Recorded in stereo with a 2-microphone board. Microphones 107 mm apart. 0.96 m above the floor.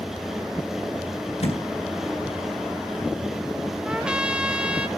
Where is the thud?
80° left, 3 m.